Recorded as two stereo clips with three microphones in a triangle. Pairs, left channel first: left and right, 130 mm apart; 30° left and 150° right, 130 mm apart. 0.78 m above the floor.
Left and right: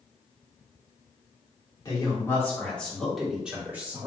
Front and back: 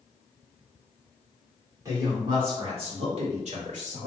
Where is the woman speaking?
145° left, 2 m; by 4.1 s 160° right, 2.5 m.